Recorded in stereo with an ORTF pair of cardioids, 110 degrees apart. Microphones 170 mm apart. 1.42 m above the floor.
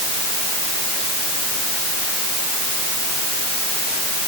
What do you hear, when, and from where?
Only background noise.